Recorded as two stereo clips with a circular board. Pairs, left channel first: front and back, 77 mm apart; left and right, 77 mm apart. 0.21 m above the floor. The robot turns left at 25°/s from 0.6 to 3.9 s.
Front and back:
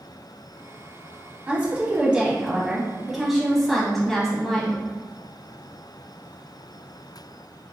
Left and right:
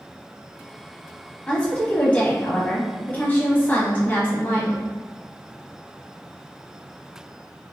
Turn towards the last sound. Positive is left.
turn(degrees=80)